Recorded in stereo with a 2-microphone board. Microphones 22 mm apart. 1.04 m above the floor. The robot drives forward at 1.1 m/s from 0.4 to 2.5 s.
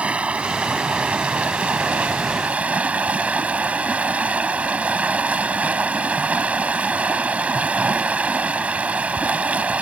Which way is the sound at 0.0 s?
60° right (ahead or behind).